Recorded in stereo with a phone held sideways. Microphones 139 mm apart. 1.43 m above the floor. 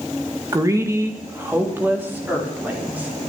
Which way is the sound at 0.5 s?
25° right (ahead or behind).